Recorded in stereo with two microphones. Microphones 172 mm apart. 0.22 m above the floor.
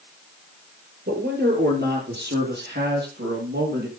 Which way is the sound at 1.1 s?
70° right (ahead or behind).